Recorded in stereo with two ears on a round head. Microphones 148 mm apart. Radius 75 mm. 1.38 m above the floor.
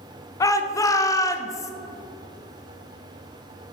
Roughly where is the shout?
Left.